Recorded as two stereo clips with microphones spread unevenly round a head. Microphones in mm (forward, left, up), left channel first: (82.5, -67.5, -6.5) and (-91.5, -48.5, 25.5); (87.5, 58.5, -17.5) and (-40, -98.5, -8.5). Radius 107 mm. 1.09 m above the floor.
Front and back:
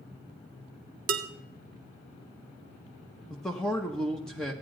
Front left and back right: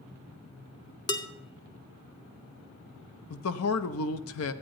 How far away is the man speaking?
About 0.6 m.